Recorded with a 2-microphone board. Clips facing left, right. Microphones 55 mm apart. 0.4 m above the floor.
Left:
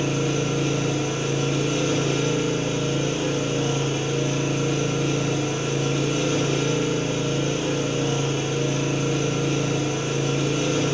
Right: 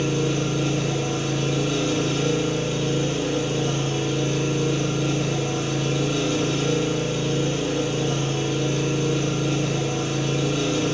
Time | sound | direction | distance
0.0 | an engine running | 60° left (ahead or behind) | 1.6 m